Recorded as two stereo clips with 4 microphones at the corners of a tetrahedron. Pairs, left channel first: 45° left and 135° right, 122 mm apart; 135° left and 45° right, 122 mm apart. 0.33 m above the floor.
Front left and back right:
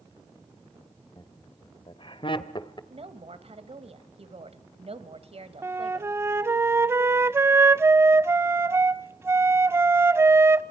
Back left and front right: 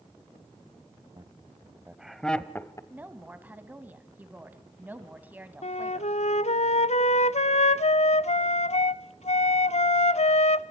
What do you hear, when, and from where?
1.2 s laughter: straight ahead, 1.4 m; by 2.8 s 80° left, 1.3 m
2.9 s a woman speaking: 120° right, 1.7 m
5.6 s a flute: 155° left, 0.5 m